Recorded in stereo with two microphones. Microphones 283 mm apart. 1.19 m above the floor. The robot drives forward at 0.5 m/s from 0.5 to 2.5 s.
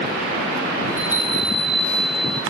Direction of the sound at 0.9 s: 55° left (ahead or behind).